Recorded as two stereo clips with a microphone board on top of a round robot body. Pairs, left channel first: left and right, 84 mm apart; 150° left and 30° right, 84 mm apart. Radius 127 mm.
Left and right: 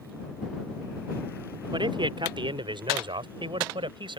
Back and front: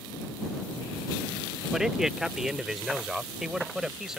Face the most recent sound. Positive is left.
turn(degrees=-115)